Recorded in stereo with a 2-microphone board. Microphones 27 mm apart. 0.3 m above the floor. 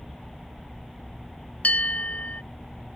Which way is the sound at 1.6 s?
70° left (ahead or behind).